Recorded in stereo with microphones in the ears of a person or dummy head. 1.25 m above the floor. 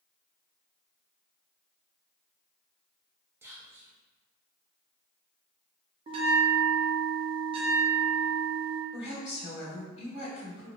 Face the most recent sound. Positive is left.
turn(degrees=40)  # may be behind; listen again after turning